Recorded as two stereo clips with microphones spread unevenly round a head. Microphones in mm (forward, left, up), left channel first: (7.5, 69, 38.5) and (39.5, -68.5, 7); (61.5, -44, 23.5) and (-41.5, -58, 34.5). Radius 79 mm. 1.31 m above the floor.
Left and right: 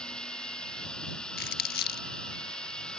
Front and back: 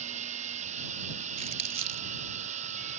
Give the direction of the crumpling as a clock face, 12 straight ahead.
7 o'clock.